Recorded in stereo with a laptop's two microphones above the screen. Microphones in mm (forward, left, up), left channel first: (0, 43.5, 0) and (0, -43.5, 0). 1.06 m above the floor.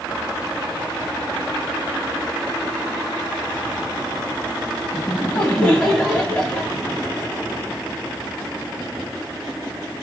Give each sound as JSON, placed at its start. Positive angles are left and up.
{"t": 4.9, "sound": "laughter", "side_deg": 20, "distance_m": 1.0}